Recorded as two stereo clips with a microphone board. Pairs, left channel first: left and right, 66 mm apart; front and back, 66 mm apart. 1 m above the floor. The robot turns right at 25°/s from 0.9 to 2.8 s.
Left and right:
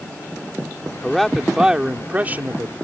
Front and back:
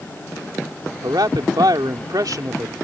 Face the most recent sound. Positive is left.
turn(degrees=-140)